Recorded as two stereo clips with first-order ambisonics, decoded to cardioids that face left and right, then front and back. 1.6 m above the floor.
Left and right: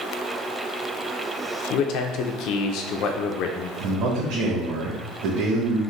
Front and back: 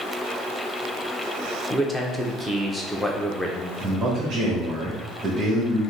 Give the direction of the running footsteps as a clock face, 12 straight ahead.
I don't hear running footsteps.